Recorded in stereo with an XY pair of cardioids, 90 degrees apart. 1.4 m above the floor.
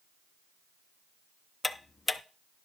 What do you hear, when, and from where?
1.6 s ticking: 25° left, 0.7 m